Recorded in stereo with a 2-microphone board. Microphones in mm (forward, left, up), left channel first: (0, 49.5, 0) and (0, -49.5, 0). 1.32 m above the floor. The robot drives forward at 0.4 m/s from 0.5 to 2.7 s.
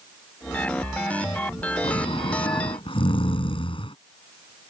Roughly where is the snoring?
Left.